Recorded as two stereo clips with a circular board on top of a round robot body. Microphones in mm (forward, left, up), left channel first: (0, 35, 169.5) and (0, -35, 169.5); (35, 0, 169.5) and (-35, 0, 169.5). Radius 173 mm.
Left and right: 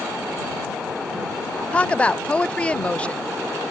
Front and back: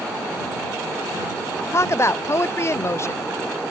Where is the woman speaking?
25° left.